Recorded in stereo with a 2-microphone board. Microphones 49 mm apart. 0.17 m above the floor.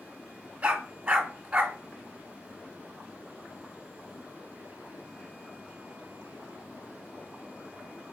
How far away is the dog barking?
About 0.7 m.